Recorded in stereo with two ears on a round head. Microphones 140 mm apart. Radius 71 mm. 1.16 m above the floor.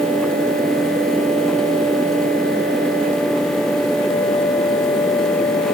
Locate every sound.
Only background noise.